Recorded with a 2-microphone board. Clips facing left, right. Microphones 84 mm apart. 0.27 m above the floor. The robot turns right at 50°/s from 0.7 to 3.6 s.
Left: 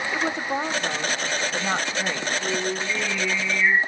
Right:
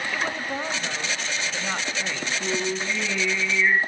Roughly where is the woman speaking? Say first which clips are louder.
Left 5 dB; centre.